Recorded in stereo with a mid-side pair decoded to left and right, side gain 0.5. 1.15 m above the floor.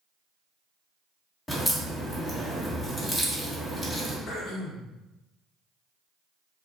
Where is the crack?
25° left, 1.5 m.